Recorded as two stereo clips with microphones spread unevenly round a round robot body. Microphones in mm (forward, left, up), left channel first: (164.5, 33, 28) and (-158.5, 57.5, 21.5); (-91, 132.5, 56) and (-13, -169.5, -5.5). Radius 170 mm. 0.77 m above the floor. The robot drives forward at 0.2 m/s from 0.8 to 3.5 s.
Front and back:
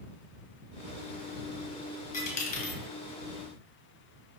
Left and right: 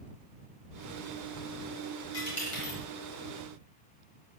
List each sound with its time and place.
2.1 s a dropped coin: 60° left, 1.7 m; by 2.8 s 65° left, 1.6 m